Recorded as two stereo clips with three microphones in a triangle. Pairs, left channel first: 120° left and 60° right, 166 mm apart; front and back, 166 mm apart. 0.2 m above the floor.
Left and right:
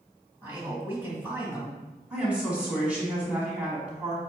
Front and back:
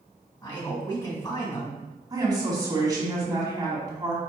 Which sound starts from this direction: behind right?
A woman speaking, at 2.1 s.